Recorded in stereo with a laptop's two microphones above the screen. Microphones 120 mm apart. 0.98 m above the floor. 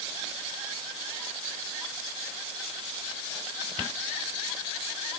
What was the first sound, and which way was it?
Only background noise.